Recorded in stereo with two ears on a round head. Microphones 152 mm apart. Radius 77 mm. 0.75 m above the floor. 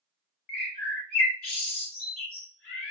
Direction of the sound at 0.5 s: 55° left (ahead or behind).